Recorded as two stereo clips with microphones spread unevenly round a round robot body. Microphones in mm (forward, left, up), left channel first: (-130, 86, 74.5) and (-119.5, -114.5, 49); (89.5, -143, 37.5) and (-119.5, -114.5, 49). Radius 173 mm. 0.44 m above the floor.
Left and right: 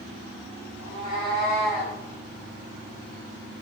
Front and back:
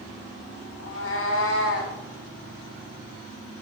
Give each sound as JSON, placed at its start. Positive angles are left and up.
{"t": 0.8, "sound": "a cat meowing", "azimuth_deg": -25, "distance_m": 1.7}